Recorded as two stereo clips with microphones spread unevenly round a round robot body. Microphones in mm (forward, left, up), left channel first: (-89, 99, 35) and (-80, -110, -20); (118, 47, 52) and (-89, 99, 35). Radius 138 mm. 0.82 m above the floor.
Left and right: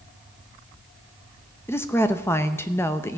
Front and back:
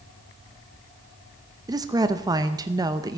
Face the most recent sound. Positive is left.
turn(degrees=-170)